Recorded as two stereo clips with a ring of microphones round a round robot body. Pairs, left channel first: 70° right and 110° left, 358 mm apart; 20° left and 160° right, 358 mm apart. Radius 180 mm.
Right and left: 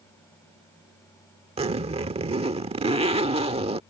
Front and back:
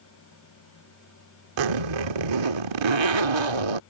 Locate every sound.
1.6 s a zipper: 175° right